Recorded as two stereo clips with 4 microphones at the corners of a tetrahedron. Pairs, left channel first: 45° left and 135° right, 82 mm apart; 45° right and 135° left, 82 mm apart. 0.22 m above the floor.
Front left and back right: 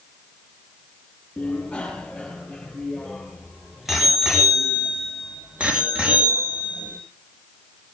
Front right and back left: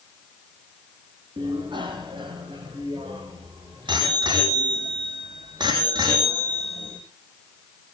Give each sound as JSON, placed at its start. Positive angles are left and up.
{"t": 1.4, "sound": "a bicycle bell", "azimuth_deg": 125, "distance_m": 5.0}